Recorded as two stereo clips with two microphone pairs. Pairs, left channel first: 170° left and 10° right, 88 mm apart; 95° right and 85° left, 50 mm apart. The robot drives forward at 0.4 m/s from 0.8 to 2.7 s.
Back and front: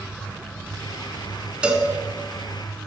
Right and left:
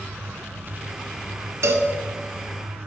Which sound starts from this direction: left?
A cowbell, at 1.6 s.